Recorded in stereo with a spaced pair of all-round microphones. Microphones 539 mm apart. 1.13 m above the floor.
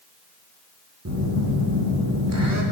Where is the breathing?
No breathing in this recording.